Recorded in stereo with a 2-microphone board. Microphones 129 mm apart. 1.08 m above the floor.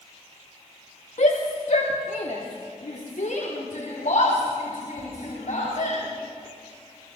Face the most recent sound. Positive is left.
turn(degrees=85)